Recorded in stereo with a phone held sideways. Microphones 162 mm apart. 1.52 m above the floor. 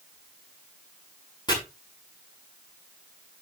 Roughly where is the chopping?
Left.